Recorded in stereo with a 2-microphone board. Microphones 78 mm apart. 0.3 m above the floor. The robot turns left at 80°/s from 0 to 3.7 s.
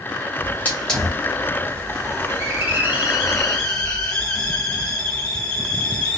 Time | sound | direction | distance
0.4 | a hiss | 25° left (ahead or behind) | 1.6 m